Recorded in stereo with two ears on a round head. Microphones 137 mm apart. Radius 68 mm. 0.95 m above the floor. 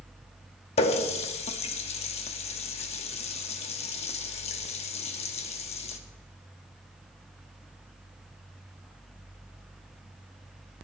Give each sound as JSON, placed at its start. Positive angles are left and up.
{"t": 0.8, "sound": "a running tap", "side_deg": 40, "distance_m": 0.8}